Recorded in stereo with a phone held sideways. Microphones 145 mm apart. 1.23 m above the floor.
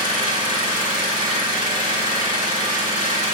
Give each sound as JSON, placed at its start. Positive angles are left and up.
{"t": 0.0, "sound": "an engine running", "side_deg": -35, "distance_m": 2.5}